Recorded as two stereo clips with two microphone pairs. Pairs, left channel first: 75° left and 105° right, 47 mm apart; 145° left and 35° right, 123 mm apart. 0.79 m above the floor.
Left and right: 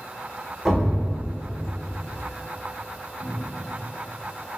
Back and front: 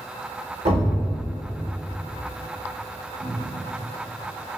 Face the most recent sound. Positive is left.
turn(degrees=-100)